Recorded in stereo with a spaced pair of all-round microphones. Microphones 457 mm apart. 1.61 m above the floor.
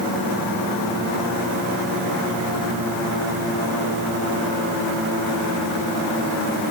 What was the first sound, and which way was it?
Only background noise.